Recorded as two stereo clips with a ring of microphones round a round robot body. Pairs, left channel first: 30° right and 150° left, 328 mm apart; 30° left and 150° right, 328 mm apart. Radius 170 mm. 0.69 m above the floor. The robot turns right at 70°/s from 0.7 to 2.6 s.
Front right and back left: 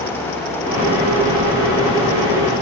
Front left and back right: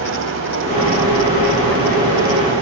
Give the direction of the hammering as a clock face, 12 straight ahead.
I don't hear hammering.